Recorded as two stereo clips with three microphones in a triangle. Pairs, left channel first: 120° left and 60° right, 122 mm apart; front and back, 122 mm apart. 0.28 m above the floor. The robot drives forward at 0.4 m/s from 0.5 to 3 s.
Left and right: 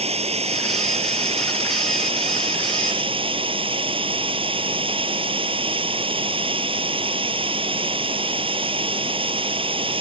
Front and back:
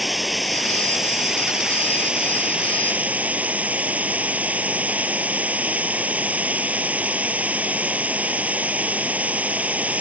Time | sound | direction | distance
0.0 | running water | 90° right | ?